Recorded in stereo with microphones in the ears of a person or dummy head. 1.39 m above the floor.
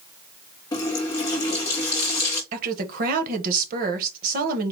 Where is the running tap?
15° left (ahead or behind), 1.3 m.